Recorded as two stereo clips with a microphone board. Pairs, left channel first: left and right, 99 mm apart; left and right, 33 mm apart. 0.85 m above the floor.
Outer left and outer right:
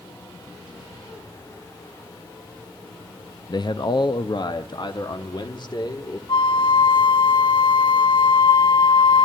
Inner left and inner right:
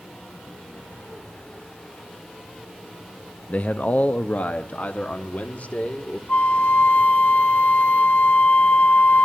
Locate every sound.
3.5 s a man speaking: 45° left (ahead or behind), 0.6 m
6.3 s a flute: 50° left (ahead or behind), 0.9 m